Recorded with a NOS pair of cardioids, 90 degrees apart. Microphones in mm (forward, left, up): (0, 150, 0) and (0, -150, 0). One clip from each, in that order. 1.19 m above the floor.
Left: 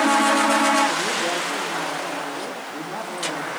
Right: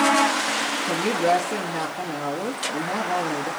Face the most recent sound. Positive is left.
turn(degrees=-70)